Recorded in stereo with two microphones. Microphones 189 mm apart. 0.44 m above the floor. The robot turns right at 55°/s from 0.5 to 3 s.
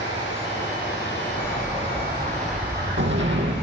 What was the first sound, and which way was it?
Running water, 70° left.